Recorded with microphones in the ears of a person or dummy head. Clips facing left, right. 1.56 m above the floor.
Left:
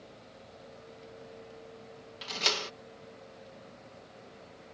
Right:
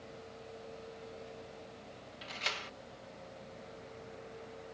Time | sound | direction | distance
2.2 | a door slam | 65° left (ahead or behind) | ?